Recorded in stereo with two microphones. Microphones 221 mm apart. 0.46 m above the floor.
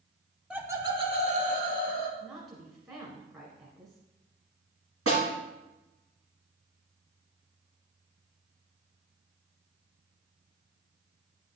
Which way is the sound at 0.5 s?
5° right (ahead or behind).